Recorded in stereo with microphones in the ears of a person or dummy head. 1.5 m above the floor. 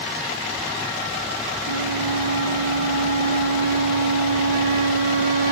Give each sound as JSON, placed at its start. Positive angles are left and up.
{"t": 1.6, "sound": "a flute", "side_deg": -70, "distance_m": 2.5}